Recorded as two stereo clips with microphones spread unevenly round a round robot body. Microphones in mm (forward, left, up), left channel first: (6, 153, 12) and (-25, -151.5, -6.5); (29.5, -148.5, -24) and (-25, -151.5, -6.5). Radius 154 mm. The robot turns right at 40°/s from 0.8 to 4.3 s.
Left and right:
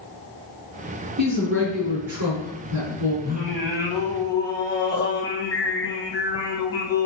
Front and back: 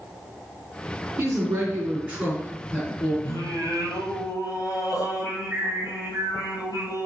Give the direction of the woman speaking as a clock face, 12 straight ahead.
5 o'clock.